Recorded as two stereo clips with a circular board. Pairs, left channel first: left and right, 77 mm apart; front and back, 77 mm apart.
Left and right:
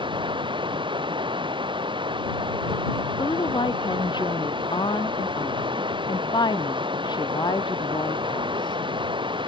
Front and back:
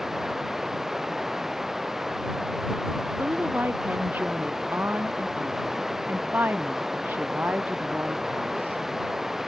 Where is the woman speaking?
115° left.